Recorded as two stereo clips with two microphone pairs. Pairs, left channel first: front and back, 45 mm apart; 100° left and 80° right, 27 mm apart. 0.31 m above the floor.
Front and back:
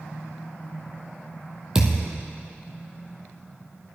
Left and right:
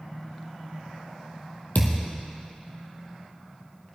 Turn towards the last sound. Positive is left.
turn(degrees=105)